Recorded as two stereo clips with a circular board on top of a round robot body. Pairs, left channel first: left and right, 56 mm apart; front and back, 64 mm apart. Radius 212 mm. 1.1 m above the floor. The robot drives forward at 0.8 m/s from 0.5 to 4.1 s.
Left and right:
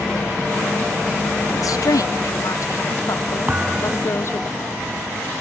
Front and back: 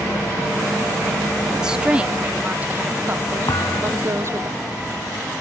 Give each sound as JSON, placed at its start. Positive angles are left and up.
{"t": 1.5, "sound": "a woman speaking", "azimuth_deg": 100}
{"t": 3.5, "sound": "a thud", "azimuth_deg": -25}